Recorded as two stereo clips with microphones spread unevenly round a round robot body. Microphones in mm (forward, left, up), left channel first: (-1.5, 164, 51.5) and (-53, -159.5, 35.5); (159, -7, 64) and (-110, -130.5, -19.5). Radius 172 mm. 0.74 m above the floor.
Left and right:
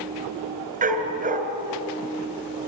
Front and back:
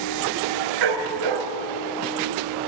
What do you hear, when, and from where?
0.8 s a dog barking: 165° right, 2.5 m